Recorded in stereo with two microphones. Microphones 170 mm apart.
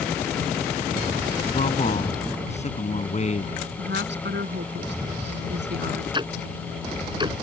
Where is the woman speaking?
90° right.